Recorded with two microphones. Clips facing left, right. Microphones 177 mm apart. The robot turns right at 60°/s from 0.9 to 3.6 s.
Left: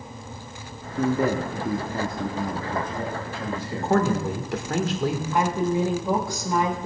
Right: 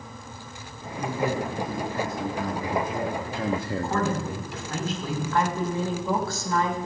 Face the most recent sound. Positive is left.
turn(degrees=15)  # may be behind; listen again after turning